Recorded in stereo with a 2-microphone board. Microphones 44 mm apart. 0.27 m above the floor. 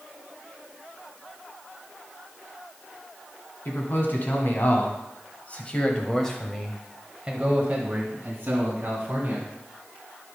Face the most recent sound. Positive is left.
turn(degrees=-50)  # may be behind; listen again after turning